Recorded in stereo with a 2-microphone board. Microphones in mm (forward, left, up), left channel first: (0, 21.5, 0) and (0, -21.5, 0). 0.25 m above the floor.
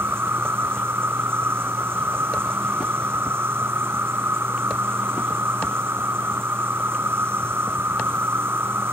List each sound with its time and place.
0.0 s an insect: 65° right (ahead or behind)